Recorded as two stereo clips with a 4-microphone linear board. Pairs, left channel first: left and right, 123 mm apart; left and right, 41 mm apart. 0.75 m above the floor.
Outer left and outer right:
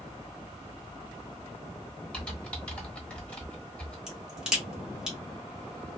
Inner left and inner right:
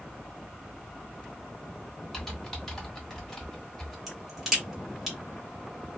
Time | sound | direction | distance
2.1 | typing on a keyboard | 10° left (ahead or behind) | 1.1 m
4.1 | a crack | 5° right (ahead or behind) | 1.4 m